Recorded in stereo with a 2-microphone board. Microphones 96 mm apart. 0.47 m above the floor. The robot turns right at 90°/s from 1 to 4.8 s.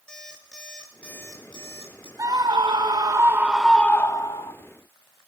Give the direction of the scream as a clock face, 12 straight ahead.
4 o'clock.